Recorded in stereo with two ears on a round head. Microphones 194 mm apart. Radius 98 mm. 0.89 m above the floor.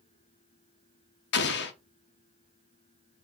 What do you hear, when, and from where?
1.3 s an explosion: 55° left (ahead or behind), 0.7 m